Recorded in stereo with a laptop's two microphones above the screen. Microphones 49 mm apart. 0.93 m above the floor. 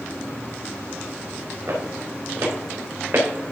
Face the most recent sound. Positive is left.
turn(degrees=-50)  # may be behind; listen again after turning